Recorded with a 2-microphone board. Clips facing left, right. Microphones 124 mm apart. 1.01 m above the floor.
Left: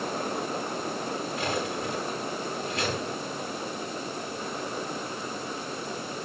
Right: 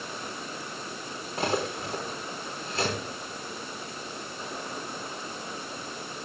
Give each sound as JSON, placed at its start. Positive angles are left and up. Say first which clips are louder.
{"t": 1.4, "sound": "cutlery clinking", "louder": "right 5 dB", "side_deg": -35, "distance_m": 5.5}